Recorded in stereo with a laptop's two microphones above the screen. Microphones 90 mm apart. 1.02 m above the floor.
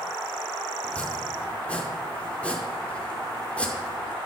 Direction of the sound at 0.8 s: 15° left (ahead or behind).